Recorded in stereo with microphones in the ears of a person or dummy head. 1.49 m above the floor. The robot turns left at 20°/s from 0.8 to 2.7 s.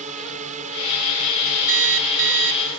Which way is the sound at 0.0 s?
40° right.